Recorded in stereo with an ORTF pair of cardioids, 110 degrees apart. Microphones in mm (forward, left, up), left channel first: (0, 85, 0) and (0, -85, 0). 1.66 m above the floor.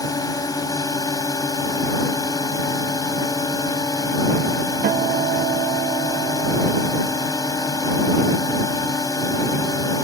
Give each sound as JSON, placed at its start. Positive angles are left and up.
{"t": 0.0, "sound": "a drone", "azimuth_deg": 20}
{"t": 4.8, "sound": "a guitar", "azimuth_deg": -60}